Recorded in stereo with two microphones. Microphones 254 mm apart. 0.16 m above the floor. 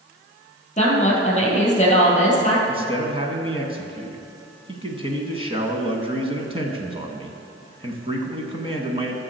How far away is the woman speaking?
About 3.5 m.